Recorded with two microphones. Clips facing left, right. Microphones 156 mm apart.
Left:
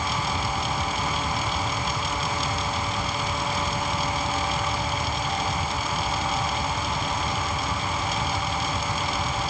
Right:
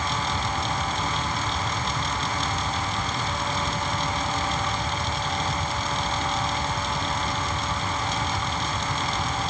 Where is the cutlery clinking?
No cutlery clinking in this recording.